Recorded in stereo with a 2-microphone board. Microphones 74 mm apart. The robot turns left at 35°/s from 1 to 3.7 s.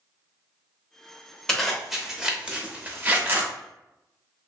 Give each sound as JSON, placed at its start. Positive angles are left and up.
{"t": 1.5, "sound": "a zipper", "side_deg": 5, "distance_m": 0.8}